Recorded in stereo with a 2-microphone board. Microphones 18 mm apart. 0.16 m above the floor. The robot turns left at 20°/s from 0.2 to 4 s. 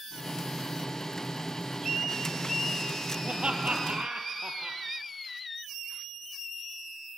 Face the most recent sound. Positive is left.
turn(degrees=-75)  # may be behind; listen again after turning